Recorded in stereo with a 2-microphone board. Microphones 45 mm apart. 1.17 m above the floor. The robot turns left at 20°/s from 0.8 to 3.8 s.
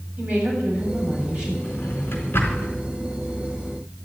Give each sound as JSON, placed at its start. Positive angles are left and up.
{"t": 0.2, "sound": "a woman speaking", "side_deg": -30, "distance_m": 8.5}
{"t": 1.6, "sound": "a drawer", "side_deg": 35, "distance_m": 4.0}